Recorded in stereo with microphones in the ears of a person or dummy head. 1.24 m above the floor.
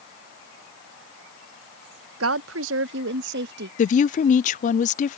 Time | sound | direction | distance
2.2 | a woman speaking | 80° right | ?
3.8 | a woman speaking | 30° left (ahead or behind) | ?